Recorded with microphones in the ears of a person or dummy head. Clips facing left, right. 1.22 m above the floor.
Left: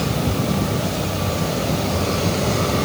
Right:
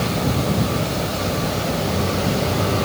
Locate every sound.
Only background noise.